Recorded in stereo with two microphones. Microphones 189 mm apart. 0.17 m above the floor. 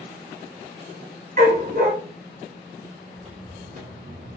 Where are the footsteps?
35° right (ahead or behind), 1.6 m; by 4.4 s 60° right (ahead or behind), 0.9 m.